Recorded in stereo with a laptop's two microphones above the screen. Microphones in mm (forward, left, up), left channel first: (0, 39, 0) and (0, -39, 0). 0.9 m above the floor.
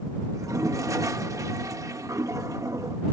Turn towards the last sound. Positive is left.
turn(degrees=-40)  # may be behind; listen again after turning